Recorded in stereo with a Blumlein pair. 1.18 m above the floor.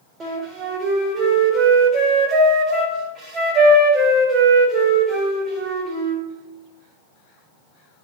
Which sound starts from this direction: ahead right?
A flute, at 0.2 s.